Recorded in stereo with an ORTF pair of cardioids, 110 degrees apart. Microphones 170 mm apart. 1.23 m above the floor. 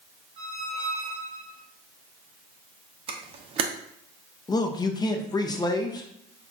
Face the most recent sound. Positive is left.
turn(degrees=25)